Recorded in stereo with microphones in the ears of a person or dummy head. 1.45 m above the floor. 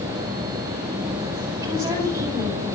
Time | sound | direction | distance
1.6 | a woman speaking | 20° right (ahead or behind) | 8.5 m